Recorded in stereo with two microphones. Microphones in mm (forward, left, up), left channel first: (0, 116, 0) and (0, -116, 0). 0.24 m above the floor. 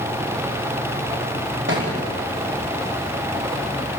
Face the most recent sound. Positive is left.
turn(degrees=-50)  # may be behind; listen again after turning